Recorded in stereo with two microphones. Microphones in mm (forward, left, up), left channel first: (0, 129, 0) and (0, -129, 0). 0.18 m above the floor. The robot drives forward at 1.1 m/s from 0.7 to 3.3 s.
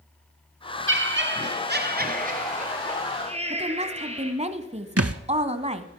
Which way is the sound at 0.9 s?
50° right (ahead or behind).